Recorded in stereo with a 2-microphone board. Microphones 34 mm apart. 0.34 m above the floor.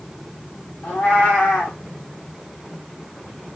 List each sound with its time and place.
0.8 s a cat meowing: 80° left, 2.5 m